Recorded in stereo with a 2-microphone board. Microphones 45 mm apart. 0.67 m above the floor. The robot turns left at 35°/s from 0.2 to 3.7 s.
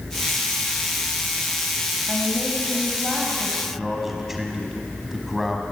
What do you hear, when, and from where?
2.1 s a woman speaking: 10° left, 4 m; by 3.5 s 40° right, 4 m
3.6 s a man speaking: 5° right (ahead or behind), 4.5 m; by 5.6 s 10° right (ahead or behind), 4.5 m